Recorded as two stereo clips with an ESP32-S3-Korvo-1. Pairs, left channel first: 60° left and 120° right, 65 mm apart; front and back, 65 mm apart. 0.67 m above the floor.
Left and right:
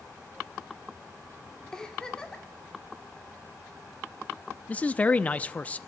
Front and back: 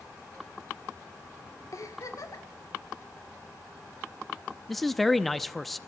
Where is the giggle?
20° right, 1.8 m.